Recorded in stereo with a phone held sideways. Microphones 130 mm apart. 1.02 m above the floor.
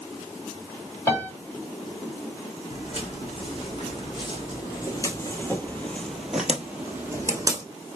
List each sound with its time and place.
1.1 s a piano: 20° left (ahead or behind), 2.5 m
2.7 s footsteps: 45° left (ahead or behind), 2 m; by 7.6 s 25° right (ahead or behind), 1.3 m